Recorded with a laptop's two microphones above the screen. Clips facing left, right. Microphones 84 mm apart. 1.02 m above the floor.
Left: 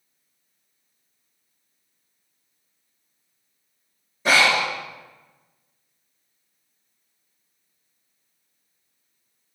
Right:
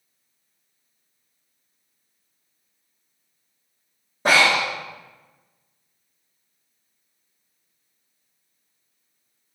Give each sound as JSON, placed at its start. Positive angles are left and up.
{"t": 4.2, "sound": "breathing", "side_deg": -50, "distance_m": 1.0}